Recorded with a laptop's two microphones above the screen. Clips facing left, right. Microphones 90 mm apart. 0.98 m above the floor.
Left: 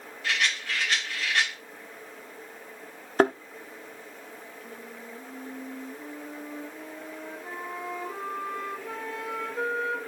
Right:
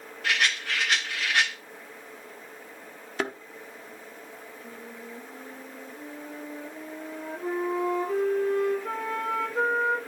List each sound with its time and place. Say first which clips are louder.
0.2 s a rattle: right 2 dB; 65° right (ahead or behind), 7.5 m
3.2 s a thud: left 9 dB; 40° left (ahead or behind), 0.9 m
4.6 s a flute: right 1 dB; 75° right (ahead or behind), 5.5 m